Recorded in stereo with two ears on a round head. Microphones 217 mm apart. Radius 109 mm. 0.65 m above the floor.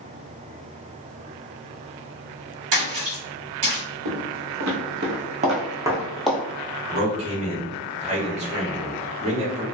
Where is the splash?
50° right (ahead or behind), 1.6 m.